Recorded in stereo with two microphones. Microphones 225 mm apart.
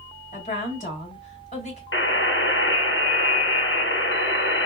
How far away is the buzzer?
About 0.9 m.